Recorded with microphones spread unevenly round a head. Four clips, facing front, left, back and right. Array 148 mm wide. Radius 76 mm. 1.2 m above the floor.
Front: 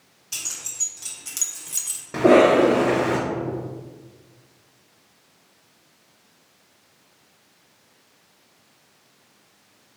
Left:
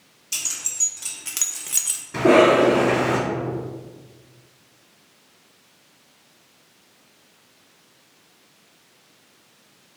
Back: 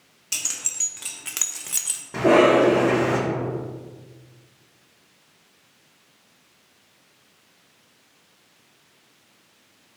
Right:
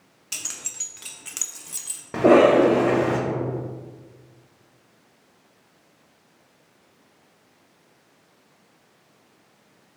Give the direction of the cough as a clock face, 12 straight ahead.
2 o'clock.